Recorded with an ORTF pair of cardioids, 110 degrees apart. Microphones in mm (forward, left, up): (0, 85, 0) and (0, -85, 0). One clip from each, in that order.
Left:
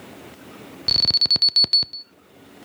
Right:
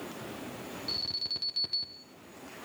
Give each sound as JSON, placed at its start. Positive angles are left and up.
{"t": 0.9, "sound": "an alarm", "azimuth_deg": 70, "distance_m": 0.6}